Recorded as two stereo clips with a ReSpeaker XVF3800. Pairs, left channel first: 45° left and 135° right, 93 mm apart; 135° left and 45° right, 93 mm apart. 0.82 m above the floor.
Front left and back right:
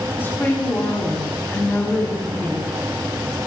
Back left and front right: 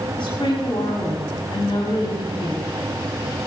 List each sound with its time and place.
0.2 s a woman speaking: 110° left, 6 m